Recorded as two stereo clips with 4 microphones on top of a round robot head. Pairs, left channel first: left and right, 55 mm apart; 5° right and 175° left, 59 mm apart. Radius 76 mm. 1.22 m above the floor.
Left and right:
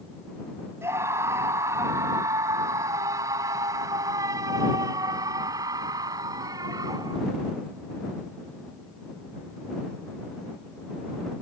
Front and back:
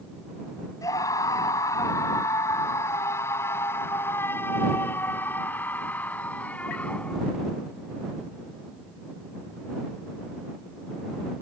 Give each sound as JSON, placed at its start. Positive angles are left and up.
{"t": 0.8, "sound": "a scream", "azimuth_deg": -40}